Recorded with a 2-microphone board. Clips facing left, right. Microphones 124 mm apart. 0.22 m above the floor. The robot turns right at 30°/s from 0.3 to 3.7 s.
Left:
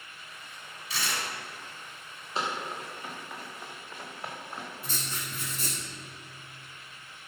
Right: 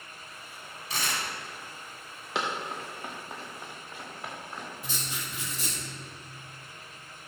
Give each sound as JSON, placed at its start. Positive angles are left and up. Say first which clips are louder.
{"t": 0.9, "sound": "tearing paper", "louder": "right 1 dB", "side_deg": -50, "distance_m": 1.7}
{"t": 2.4, "sound": "running footsteps", "louder": "right 1 dB", "side_deg": -85, "distance_m": 2.5}
{"t": 4.8, "sound": "writing", "louder": "even", "side_deg": -15, "distance_m": 1.8}